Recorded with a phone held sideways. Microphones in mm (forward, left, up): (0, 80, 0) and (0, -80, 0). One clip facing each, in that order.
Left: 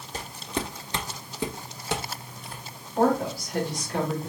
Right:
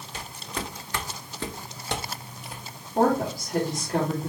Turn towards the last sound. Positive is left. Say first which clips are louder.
# even
turn(degrees=-45)  # may be behind; listen again after turning